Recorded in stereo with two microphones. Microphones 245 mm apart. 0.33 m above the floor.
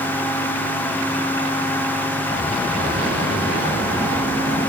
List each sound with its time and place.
Only background noise.